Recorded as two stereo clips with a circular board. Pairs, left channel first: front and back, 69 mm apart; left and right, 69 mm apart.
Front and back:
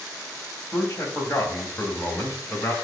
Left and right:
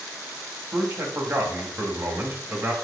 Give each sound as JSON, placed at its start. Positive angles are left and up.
{"t": 0.7, "sound": "a man speaking", "azimuth_deg": -50, "distance_m": 2.5}